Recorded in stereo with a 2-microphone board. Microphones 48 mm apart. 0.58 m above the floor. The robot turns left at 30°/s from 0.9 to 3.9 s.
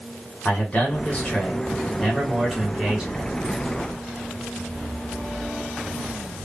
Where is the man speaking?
45° left, 1.5 m; by 3.3 s 25° right, 1.5 m.